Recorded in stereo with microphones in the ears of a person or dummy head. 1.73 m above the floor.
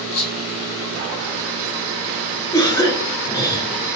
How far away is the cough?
About 0.8 m.